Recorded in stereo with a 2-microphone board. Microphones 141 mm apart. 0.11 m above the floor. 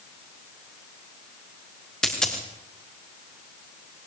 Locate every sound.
2.0 s a dropped coin: 5° left (ahead or behind), 5.5 m